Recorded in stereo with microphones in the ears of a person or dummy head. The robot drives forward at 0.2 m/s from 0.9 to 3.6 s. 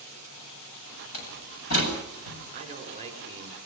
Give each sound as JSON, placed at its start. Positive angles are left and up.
{"t": 1.1, "sound": "a door slam", "side_deg": 75, "distance_m": 8.0}
{"t": 2.5, "sound": "a man speaking", "side_deg": -35, "distance_m": 5.0}